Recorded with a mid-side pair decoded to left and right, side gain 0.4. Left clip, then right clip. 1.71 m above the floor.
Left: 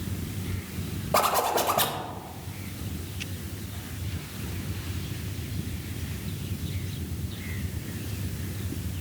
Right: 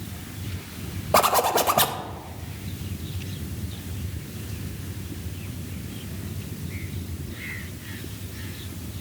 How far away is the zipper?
About 0.6 m.